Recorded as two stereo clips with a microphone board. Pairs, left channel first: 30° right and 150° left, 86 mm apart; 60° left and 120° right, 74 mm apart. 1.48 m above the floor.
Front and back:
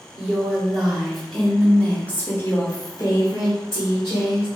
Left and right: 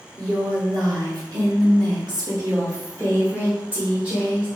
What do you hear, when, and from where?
0.2 s a woman speaking: 135° right, 1.8 m; by 4.5 s 40° right, 1.4 m